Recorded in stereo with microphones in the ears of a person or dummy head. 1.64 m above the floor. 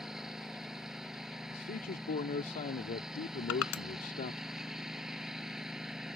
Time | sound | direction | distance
0.0 | a lawn mower | 5° right (ahead or behind) | ?
1.5 | a man speaking | 45° left (ahead or behind) | ?
3.5 | crushing | 80° left | ?